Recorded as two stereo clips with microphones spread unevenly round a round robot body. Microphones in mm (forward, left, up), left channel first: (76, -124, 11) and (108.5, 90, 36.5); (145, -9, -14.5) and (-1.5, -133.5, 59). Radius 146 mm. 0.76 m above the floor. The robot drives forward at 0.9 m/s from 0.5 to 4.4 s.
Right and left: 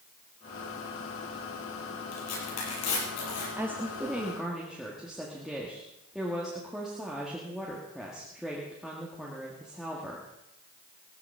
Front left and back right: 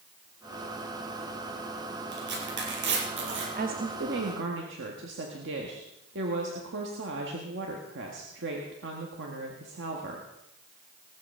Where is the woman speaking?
165° left, 1.1 m; by 10.2 s 175° left, 1.6 m.